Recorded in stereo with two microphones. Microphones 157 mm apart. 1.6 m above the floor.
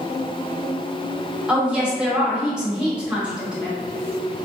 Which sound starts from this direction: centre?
A woman speaking, at 1.5 s.